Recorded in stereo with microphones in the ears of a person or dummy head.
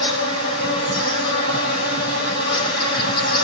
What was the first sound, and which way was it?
An insect, 65° left (ahead or behind).